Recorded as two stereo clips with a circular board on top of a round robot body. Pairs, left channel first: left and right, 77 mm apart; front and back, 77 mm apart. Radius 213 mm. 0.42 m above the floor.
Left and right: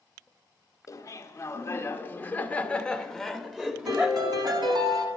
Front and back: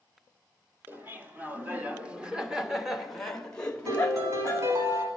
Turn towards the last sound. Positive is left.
turn(degrees=-125)